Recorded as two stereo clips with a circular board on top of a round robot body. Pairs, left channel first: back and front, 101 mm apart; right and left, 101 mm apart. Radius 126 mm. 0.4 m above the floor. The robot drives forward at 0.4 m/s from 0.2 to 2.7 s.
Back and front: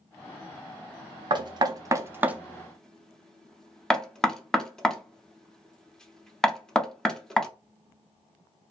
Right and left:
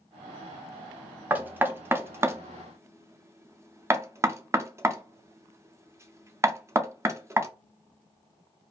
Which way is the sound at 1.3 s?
20° left.